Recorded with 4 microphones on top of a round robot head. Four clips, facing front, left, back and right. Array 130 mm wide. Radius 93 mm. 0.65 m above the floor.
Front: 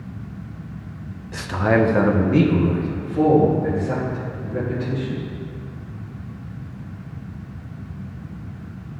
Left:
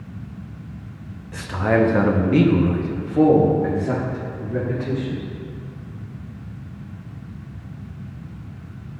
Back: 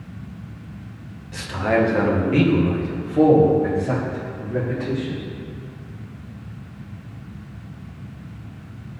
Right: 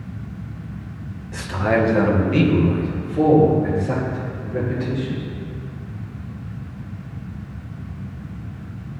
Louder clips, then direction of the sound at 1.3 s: Even, front 1 dB; 10° right.